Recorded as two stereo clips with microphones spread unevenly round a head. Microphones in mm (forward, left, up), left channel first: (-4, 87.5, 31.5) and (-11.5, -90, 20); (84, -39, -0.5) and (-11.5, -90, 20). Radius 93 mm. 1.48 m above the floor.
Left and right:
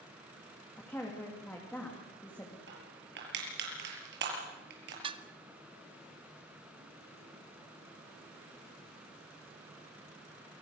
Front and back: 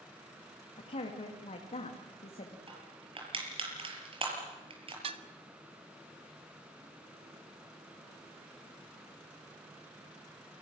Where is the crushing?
120° right, 6.5 m.